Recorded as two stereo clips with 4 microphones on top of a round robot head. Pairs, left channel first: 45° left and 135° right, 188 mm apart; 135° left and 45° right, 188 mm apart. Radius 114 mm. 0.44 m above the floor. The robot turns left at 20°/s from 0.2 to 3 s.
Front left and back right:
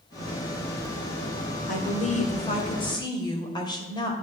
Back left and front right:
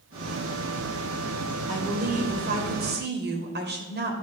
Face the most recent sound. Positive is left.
turn(degrees=-20)